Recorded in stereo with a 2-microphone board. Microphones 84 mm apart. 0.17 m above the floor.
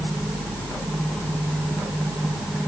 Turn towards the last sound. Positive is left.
No sound to turn to.